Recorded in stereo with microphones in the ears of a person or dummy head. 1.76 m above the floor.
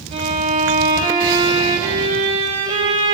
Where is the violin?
35° right (ahead or behind), 1.6 m.